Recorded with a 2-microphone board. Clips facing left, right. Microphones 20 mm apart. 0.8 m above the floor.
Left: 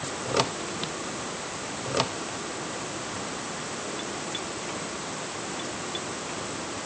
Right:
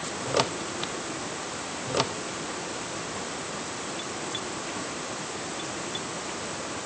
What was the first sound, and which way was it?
Only background noise.